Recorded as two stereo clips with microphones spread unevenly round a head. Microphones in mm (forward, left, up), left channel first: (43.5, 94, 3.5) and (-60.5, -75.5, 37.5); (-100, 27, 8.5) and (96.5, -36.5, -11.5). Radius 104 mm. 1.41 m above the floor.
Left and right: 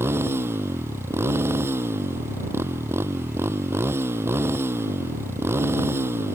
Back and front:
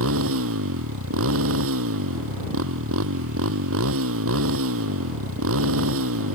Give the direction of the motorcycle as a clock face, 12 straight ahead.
1 o'clock.